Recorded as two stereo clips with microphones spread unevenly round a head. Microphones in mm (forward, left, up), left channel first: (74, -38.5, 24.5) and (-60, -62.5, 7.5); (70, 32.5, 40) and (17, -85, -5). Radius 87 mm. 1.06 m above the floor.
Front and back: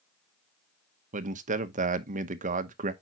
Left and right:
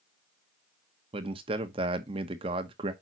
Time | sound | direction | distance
1.1 | a man speaking | 155° right | 0.9 m